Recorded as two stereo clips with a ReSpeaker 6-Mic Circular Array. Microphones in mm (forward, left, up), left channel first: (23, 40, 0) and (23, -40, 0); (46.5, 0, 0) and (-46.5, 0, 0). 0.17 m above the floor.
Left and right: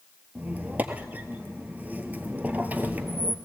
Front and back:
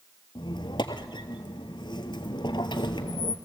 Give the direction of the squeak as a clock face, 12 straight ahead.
1 o'clock.